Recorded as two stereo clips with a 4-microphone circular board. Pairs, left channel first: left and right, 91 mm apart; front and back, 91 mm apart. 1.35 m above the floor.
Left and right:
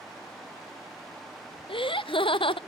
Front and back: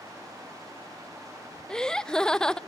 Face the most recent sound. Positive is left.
turn(degrees=80)